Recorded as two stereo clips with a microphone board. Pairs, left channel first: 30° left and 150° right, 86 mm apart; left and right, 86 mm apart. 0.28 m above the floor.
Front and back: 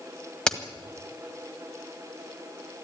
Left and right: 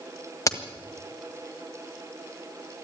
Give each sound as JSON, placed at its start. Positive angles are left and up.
{"t": 0.5, "sound": "a crack", "azimuth_deg": 110, "distance_m": 1.7}